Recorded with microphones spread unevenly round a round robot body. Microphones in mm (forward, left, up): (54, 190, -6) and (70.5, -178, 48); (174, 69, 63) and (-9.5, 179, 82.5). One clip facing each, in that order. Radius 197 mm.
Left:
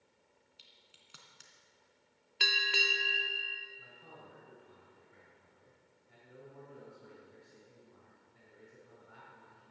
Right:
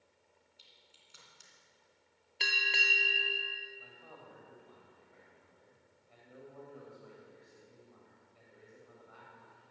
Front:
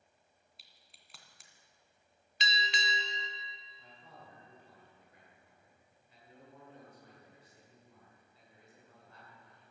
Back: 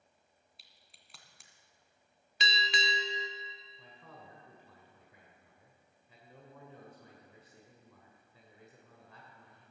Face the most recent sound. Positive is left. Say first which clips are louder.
# right 1 dB, back 1 dB
turn(degrees=160)